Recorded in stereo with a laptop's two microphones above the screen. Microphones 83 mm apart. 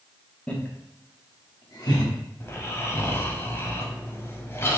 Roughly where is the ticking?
I don't hear ticking.